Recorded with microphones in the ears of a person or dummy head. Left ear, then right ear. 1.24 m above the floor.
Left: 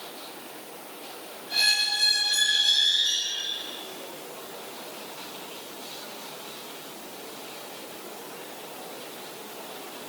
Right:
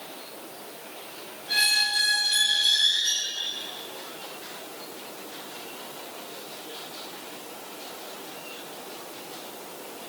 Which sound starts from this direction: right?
A squeak, at 1.5 s.